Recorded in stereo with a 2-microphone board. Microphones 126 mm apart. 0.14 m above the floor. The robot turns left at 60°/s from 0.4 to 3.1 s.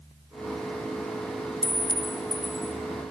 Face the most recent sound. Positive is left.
turn(degrees=-155)